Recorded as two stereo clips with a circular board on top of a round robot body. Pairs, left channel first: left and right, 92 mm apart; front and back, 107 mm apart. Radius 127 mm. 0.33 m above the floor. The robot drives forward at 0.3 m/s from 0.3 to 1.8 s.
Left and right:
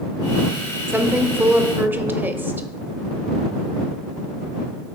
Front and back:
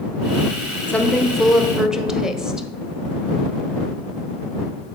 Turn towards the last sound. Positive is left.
turn(degrees=-105)